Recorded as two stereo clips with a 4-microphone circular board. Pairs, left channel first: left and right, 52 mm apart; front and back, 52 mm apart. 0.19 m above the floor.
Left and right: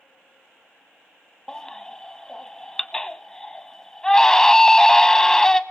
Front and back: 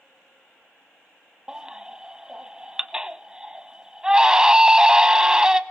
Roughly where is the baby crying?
Behind left.